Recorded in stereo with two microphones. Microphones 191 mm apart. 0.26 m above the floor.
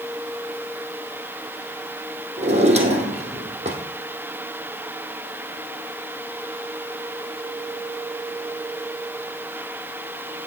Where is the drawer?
35° right (ahead or behind), 2.5 m.